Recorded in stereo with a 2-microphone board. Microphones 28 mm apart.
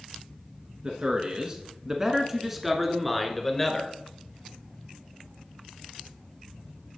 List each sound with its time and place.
0.8 s a man speaking: 30° right (ahead or behind), 1.3 m; by 3.9 s 10° left (ahead or behind), 1.6 m